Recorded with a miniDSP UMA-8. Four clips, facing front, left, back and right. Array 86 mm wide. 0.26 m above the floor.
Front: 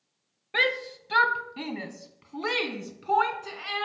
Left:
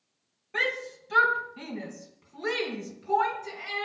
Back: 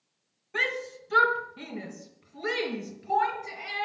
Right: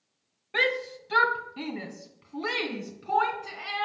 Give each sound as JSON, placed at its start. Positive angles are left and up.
{"t": 0.5, "sound": "a shout", "azimuth_deg": -25, "distance_m": 1.3}